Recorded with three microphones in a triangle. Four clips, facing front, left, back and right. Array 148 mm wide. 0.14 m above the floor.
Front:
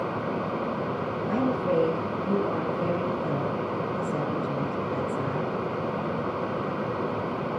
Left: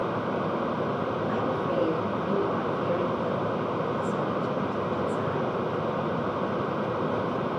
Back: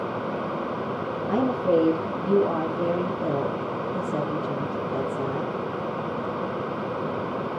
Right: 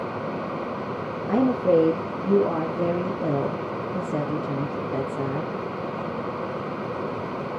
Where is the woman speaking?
105° right, 3.5 m.